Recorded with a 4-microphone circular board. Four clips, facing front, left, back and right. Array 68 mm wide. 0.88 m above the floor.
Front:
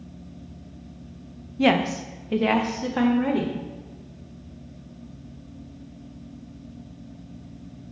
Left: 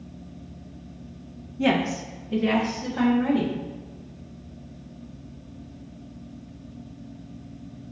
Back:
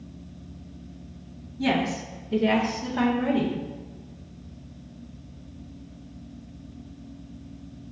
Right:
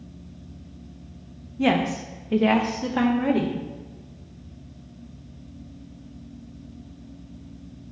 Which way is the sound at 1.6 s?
10° right.